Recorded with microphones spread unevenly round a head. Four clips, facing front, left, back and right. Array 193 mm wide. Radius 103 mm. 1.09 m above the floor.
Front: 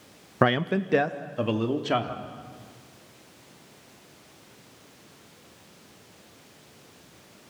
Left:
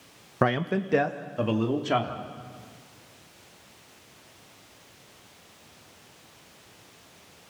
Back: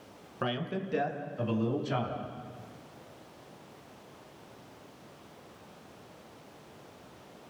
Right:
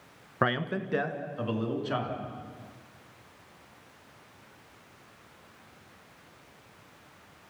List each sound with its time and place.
0.4 s a man speaking: 20° left, 1.1 m; by 2.2 s 30° left, 3.5 m